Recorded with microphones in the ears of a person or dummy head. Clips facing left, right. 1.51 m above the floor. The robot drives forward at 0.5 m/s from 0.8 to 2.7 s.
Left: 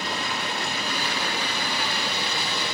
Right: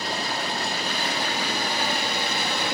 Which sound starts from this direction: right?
Running water, at 0.0 s.